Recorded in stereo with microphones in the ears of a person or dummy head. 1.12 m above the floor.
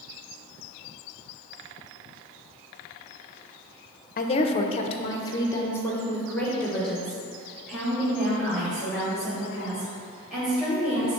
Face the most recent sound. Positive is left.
turn(degrees=0)  # may be behind; listen again after turning